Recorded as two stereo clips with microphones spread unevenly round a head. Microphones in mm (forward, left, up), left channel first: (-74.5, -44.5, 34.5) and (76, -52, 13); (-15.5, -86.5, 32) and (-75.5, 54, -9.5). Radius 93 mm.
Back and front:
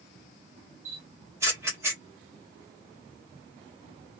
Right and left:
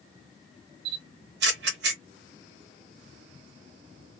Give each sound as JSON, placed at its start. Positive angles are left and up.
{"t": 0.8, "sound": "a camera shutter", "azimuth_deg": 75, "distance_m": 0.7}